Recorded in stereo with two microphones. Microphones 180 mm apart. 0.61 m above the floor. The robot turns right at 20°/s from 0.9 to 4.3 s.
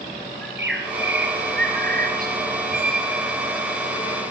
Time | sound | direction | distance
0.4 | a bird | 80° right | 4 m
2.7 | a squeak | 60° right (ahead or behind) | 4.5 m